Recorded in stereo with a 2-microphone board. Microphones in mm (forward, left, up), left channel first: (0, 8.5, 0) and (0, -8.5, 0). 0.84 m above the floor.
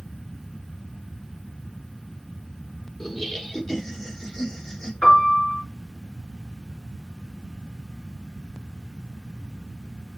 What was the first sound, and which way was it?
Laughter, 10° left (ahead or behind).